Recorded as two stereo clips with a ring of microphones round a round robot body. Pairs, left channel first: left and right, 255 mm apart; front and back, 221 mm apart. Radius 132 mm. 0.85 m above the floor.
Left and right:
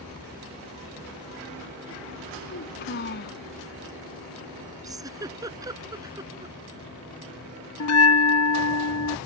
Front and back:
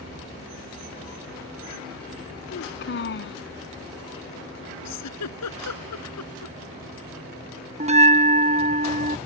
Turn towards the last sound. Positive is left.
turn(degrees=120)